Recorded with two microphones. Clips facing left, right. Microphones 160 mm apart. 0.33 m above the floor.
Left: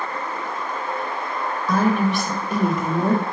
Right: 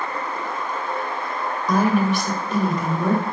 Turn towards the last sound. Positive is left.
turn(degrees=35)  # may be behind; listen again after turning